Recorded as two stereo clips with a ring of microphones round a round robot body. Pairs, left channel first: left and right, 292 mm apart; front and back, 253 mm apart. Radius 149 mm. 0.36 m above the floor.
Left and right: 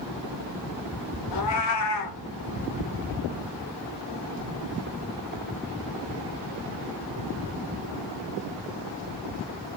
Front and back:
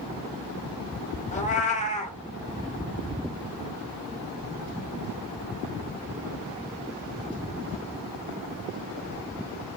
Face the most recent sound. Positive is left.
turn(degrees=60)